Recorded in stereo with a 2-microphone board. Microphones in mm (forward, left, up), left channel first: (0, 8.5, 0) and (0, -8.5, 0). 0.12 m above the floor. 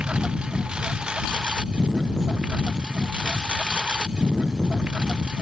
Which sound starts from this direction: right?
A lawn mower, at 0.0 s.